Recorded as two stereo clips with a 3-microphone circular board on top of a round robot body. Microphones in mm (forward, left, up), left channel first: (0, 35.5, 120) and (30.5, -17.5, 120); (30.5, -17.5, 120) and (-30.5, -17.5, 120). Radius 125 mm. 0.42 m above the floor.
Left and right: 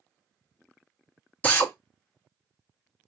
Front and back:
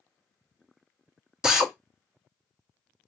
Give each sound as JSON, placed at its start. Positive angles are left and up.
{"t": 1.4, "sound": "a drill", "azimuth_deg": 115, "distance_m": 1.3}